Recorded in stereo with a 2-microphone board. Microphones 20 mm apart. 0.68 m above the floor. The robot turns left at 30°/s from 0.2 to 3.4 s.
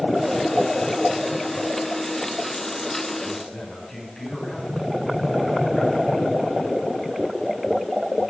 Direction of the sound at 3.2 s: 10° left (ahead or behind).